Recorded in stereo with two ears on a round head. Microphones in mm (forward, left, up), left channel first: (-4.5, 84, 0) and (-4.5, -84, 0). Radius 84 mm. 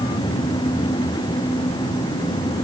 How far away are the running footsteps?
I don't hear running footsteps.